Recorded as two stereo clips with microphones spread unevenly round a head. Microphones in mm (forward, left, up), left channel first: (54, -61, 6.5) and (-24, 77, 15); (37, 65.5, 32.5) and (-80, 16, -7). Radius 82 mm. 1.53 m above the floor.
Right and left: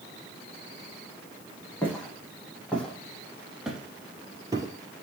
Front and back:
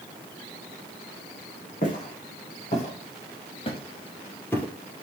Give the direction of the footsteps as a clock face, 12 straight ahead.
11 o'clock.